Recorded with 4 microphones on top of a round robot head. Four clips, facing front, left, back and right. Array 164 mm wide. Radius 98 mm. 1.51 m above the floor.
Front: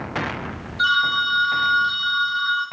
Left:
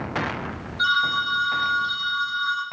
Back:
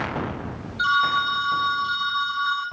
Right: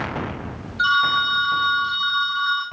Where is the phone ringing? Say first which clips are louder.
Right 4 dB, even; 60° right, 1.3 m.